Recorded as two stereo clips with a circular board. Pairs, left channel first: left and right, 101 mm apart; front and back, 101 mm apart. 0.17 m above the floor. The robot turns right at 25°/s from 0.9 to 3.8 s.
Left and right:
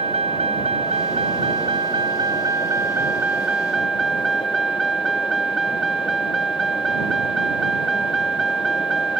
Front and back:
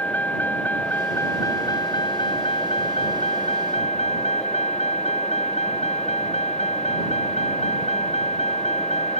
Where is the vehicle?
75° right; by 9.2 s straight ahead.